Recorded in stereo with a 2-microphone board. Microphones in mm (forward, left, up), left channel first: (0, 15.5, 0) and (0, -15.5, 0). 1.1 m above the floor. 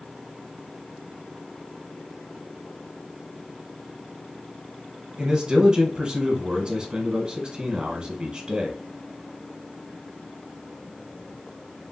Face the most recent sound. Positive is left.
turn(degrees=-25)  # may be behind; listen again after turning